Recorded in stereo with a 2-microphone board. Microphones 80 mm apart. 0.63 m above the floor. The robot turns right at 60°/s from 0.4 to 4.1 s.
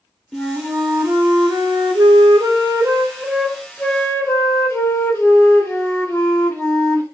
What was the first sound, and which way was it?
A flute, 175° left.